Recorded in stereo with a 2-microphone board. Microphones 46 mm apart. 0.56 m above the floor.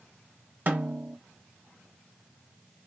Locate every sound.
0.7 s a snare drum: 45° right (ahead or behind), 1.6 m